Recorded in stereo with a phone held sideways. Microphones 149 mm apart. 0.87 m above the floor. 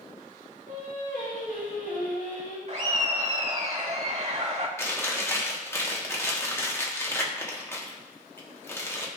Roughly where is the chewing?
Centre.